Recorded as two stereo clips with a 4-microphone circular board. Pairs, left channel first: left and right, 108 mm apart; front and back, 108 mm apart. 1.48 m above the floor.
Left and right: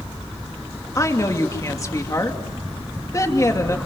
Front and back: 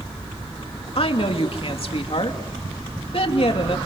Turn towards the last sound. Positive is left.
turn(degrees=30)